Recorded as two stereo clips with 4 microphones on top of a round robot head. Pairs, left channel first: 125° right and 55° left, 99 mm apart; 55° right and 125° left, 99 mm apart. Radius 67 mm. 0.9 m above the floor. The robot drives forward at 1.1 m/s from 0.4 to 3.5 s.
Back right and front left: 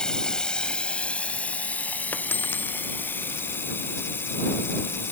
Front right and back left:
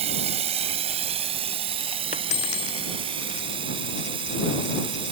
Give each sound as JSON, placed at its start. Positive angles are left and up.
{"t": 0.0, "sound": "running water", "azimuth_deg": 150}
{"t": 2.1, "sound": "a dropped coin", "azimuth_deg": -50}